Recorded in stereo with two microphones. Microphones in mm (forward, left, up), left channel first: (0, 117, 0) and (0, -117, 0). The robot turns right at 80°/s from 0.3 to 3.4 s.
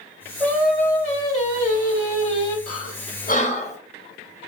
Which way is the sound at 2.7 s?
70° left (ahead or behind).